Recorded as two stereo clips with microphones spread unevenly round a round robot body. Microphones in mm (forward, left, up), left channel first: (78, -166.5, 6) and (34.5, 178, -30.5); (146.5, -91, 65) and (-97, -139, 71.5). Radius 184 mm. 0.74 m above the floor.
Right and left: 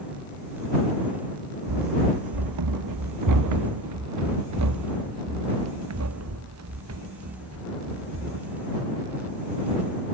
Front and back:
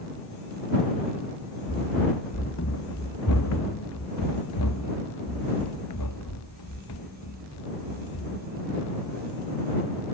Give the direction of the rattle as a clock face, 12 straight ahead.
No rattle in this recording.